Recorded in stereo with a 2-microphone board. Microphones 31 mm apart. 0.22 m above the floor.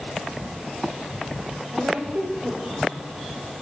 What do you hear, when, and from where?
1.7 s a woman speaking: 60° right (ahead or behind), 5.5 m; by 3.0 s 55° right (ahead or behind), 5.5 m